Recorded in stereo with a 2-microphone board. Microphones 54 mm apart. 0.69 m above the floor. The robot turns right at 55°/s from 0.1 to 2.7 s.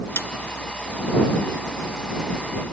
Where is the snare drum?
55° left (ahead or behind); by 0.3 s 50° left (ahead or behind).